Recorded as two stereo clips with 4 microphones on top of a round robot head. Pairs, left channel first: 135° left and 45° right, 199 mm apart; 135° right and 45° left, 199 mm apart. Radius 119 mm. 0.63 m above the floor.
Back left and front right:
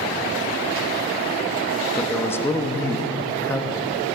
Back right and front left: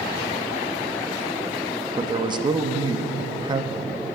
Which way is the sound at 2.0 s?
70° left.